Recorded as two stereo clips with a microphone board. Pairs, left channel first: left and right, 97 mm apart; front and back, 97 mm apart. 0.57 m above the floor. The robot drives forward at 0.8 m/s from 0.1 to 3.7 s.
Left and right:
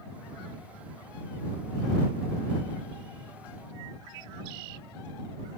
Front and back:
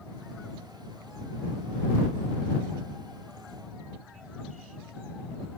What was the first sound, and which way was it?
Only background noise.